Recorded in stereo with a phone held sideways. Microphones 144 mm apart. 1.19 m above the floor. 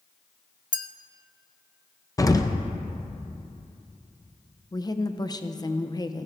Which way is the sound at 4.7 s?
25° left (ahead or behind).